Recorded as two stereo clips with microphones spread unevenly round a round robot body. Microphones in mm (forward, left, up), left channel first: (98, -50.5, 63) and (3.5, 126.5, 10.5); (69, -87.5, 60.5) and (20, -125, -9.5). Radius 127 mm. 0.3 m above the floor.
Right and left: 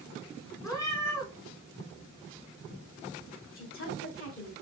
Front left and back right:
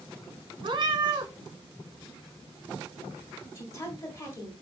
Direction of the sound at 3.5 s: 75° right.